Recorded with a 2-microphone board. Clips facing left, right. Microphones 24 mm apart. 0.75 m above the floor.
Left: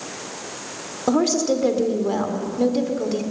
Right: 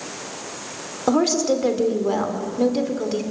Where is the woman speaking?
10° right (ahead or behind), 2.5 m.